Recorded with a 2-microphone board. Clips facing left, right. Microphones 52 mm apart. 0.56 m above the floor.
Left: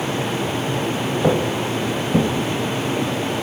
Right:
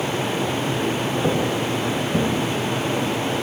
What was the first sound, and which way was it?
Footsteps, 20° left (ahead or behind).